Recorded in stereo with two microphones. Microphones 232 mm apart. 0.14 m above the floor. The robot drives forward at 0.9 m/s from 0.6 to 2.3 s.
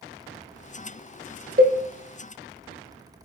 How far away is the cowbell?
About 0.5 m.